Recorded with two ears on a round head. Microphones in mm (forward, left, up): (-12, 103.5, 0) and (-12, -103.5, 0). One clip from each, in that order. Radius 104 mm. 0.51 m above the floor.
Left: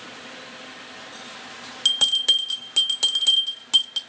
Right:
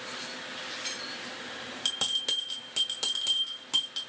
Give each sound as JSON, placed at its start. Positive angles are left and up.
{"t": 1.9, "sound": "a bell", "side_deg": 25, "distance_m": 0.9}